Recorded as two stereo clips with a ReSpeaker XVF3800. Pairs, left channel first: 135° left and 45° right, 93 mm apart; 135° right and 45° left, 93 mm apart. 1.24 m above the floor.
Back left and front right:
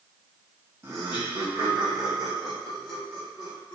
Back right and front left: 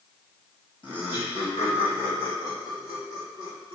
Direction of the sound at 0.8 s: 105° right.